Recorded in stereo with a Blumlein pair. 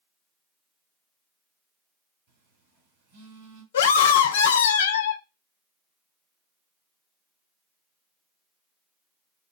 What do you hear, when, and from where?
2.3 s a phone buzzing: 30° right, 2.5 m
3.7 s a scream: 60° left, 0.6 m